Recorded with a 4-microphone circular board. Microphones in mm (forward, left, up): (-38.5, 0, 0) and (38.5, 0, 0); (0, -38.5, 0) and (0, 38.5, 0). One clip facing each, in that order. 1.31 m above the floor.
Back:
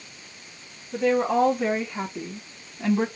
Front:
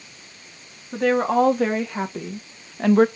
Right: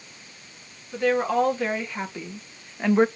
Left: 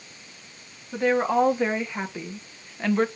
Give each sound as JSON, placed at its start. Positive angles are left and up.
{"t": 0.9, "sound": "a woman speaking", "azimuth_deg": 20, "distance_m": 3.0}